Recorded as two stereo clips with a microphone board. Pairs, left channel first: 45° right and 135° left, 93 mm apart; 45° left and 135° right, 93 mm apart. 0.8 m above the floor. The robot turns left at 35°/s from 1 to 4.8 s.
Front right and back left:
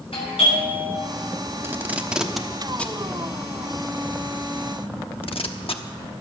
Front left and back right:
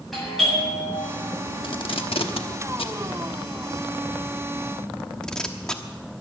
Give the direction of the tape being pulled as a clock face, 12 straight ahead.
10 o'clock.